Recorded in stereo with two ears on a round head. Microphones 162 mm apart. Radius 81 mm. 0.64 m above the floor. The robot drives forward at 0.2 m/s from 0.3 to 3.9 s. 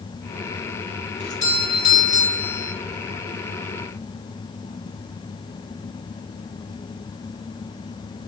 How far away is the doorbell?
About 1.6 m.